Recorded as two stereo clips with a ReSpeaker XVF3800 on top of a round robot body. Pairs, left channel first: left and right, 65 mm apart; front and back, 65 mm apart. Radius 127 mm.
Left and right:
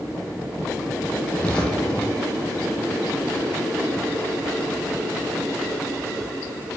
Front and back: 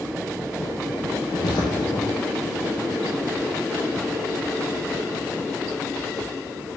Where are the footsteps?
20° left, 1.5 m.